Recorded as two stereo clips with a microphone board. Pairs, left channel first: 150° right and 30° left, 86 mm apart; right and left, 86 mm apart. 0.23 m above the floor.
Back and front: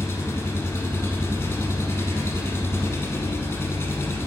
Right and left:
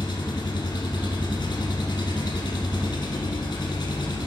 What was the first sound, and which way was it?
An engine running, 95° right.